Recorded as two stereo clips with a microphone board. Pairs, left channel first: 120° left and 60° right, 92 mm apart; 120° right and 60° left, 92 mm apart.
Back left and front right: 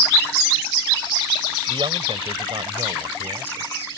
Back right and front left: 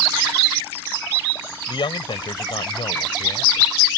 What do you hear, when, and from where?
1.7 s a man speaking: 90° right